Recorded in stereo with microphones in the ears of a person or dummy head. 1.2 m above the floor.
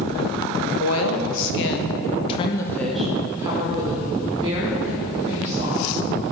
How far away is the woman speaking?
About 1.2 m.